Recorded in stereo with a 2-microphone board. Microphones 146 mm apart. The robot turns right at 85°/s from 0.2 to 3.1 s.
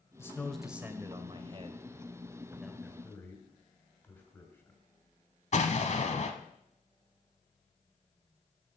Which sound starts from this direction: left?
An explosion, at 5.5 s.